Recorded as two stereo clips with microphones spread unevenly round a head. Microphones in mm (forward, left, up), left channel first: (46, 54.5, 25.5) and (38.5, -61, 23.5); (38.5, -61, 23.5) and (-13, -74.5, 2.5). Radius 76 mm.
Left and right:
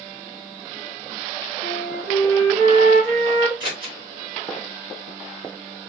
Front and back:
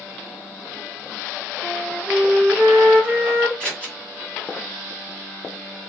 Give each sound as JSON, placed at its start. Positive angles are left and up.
{"t": 1.6, "sound": "a flute", "azimuth_deg": -90, "distance_m": 1.0}
{"t": 3.6, "sound": "scissors", "azimuth_deg": -45, "distance_m": 2.0}